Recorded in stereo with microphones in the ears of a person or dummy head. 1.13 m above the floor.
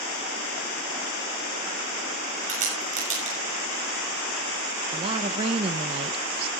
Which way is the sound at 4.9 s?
30° right (ahead or behind).